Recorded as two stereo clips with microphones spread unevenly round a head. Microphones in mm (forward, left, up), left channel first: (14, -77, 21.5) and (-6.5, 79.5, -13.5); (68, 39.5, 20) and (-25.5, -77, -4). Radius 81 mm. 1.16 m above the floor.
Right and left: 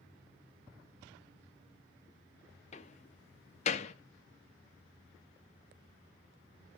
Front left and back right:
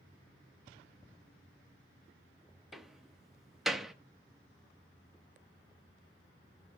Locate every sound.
2.7 s a door slam: 40° right, 1.1 m